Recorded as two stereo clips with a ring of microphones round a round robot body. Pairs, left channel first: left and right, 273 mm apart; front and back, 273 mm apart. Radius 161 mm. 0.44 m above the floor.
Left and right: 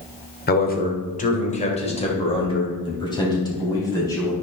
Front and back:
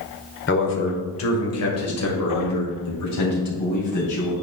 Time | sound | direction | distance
0.5 | a man speaking | 40° left | 1.5 m